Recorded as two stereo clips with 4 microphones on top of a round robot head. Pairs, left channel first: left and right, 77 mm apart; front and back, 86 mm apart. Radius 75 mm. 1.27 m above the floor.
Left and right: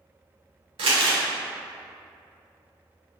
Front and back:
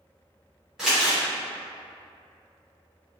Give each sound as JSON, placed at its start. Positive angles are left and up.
{"t": 0.8, "sound": "crumpling", "azimuth_deg": -95, "distance_m": 0.5}